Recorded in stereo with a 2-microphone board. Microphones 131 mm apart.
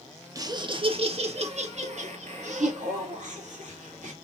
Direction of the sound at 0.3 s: 25° right (ahead or behind).